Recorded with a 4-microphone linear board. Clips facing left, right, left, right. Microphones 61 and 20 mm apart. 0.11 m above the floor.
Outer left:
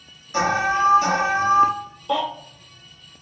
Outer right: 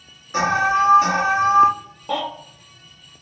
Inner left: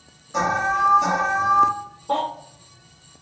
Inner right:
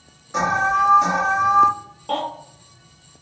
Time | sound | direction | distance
0.3 | an alarm | 30° right (ahead or behind) | 1.6 m
2.1 | a baby crying | 55° right (ahead or behind) | 1.7 m